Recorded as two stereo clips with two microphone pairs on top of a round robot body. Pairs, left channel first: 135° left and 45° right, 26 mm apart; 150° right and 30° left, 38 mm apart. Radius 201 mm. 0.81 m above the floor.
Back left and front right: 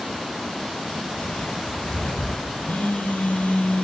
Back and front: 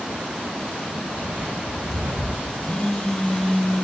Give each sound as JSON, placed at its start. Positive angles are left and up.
{"t": 1.1, "sound": "footsteps", "azimuth_deg": 85, "distance_m": 3.5}
{"t": 2.6, "sound": "a phone buzzing", "azimuth_deg": 135, "distance_m": 3.0}